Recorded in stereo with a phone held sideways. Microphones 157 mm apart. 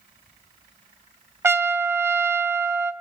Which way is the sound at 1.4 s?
15° right (ahead or behind).